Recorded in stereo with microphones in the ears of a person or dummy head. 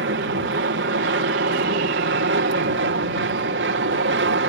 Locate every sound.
0.0 s an aircraft: 60° right (ahead or behind)